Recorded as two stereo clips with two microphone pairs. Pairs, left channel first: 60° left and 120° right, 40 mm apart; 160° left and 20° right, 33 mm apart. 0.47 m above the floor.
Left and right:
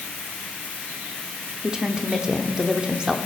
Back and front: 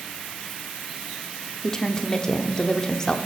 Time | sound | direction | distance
1.6 | a woman speaking | 155° right | 0.7 m